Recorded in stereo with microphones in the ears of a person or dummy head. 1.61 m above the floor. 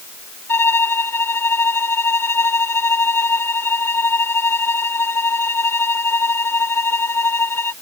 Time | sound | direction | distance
0.5 | a violin | 10° left (ahead or behind) | ?